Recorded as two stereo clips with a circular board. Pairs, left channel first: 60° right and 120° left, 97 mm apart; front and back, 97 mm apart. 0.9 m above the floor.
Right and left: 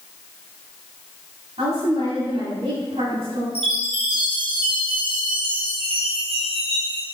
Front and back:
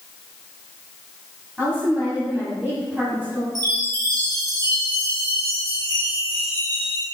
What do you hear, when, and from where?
1.6 s a woman speaking: 105° left, 7 m
3.5 s a chime: 135° left, 5 m